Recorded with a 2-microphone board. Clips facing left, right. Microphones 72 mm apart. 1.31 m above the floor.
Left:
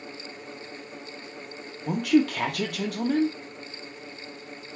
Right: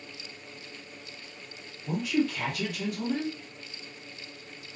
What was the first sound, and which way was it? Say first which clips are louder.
A woman speaking: left 6 dB; 65° left (ahead or behind).